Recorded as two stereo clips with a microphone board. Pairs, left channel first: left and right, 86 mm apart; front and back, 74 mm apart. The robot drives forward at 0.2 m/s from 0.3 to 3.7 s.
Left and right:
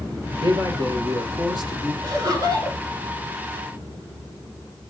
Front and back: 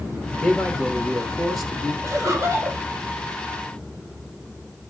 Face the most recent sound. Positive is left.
turn(degrees=-135)